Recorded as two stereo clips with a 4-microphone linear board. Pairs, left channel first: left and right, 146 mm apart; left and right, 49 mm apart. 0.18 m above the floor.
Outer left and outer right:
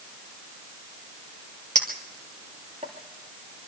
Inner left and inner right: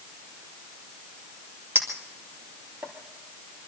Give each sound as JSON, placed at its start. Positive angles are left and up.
{"t": 1.8, "sound": "a clink", "side_deg": -55, "distance_m": 3.0}